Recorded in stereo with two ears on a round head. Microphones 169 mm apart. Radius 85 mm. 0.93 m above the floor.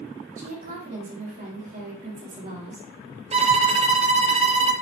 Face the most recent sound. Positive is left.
turn(degrees=-35)  # may be behind; listen again after turning